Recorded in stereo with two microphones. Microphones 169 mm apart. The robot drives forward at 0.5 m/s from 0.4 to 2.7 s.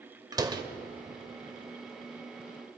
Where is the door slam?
25° right (ahead or behind), 1.4 m.